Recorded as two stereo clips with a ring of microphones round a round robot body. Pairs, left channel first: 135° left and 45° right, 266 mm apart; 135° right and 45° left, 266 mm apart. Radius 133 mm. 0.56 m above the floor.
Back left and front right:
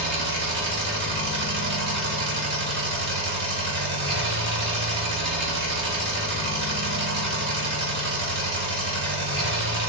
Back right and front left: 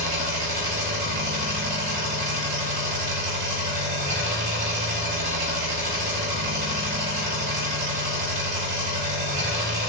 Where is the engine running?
10° right, 0.9 m.